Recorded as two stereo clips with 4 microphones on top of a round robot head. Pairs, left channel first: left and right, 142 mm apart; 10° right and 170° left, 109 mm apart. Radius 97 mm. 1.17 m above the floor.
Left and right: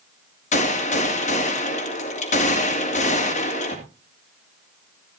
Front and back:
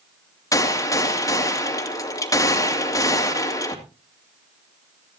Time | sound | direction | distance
0.5 | a gunshot | 45° left | 2.5 m